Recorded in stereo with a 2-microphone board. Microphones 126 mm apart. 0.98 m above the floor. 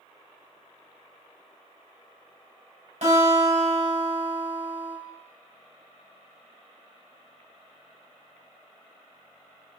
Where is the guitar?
70° right (ahead or behind), 3.5 m.